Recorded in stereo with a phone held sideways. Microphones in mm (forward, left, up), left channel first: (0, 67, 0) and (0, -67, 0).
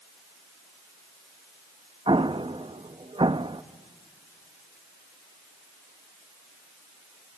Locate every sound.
2.1 s an explosion: 40° right (ahead or behind), 0.5 m